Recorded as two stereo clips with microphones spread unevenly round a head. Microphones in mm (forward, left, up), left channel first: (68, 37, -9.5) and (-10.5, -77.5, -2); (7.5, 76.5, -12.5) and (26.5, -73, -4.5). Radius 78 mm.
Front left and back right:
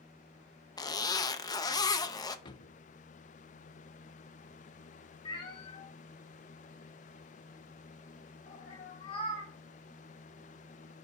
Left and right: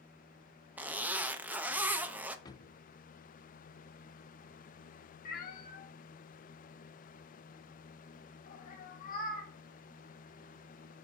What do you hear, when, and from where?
0.8 s a zipper: 5° right, 0.6 m
2.5 s a drawer: 60° left, 0.6 m
5.2 s a cat meowing: 105° left, 1.1 m